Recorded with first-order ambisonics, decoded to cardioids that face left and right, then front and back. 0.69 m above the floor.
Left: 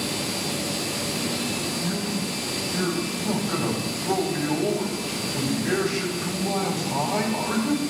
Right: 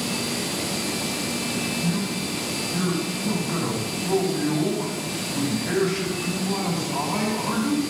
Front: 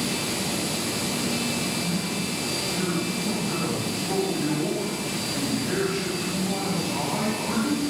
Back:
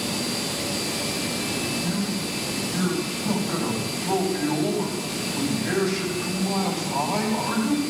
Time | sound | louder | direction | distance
1.8 | a man speaking | right 1 dB, even | 105° left | 4 m